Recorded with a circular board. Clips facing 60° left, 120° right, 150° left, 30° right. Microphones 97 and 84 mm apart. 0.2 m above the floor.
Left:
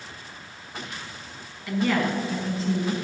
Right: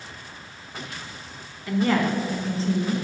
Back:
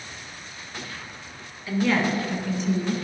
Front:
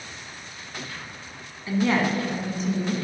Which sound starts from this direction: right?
A woman speaking, at 1.7 s.